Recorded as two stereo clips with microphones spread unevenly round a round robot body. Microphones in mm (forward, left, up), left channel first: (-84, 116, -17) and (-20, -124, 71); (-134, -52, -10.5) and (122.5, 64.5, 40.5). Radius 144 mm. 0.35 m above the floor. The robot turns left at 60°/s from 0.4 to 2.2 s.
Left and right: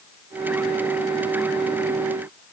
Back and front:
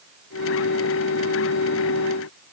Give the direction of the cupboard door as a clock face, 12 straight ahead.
I don't hear a cupboard door.